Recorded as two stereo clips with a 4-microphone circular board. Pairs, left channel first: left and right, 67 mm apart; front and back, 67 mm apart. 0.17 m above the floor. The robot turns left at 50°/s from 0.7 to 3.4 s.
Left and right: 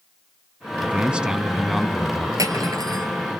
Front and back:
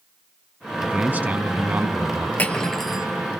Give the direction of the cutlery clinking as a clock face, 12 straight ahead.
2 o'clock.